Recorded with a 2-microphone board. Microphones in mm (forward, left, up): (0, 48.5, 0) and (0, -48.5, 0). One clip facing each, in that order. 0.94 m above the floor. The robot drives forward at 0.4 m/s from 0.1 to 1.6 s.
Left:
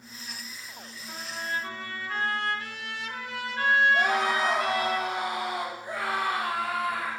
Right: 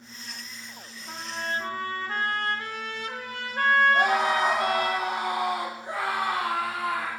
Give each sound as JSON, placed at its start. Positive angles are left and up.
{"t": 1.1, "sound": "a trumpet", "side_deg": -55, "distance_m": 0.8}
{"t": 3.9, "sound": "a scream", "side_deg": -60, "distance_m": 1.4}